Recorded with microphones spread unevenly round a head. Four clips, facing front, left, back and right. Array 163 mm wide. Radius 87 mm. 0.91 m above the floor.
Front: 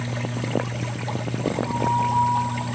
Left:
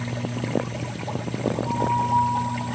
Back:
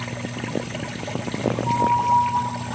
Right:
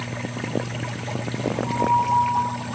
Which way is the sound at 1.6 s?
145° left.